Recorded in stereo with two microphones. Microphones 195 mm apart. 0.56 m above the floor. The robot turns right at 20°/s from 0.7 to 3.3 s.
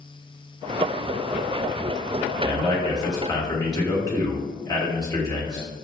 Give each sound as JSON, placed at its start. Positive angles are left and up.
{"t": 2.4, "sound": "a man speaking", "side_deg": 20, "distance_m": 1.2}